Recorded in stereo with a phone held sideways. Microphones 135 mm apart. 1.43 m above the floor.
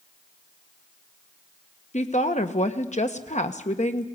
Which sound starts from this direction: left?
A woman speaking, at 1.9 s.